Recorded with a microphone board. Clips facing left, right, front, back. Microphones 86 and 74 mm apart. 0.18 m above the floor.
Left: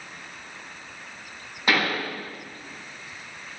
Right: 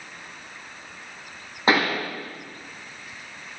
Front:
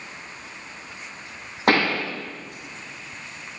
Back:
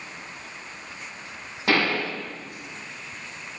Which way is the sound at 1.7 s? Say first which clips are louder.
Right 3 dB, front 3 dB; 30° right.